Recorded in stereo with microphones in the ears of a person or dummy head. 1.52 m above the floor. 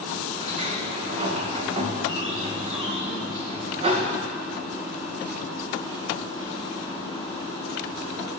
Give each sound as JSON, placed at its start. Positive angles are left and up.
{"t": 0.4, "sound": "a sliding door", "side_deg": -40, "distance_m": 1.6}